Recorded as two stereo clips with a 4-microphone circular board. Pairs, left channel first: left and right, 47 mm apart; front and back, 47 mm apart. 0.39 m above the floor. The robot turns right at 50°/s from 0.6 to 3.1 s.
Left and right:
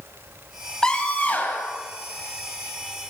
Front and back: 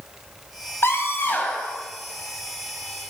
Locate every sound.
0.8 s a scream: 15° left, 3 m; by 1.8 s 65° left, 3 m